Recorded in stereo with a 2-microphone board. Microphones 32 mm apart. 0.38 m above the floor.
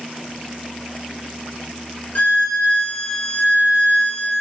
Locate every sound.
2.1 s a violin: 60° left (ahead or behind), 0.9 m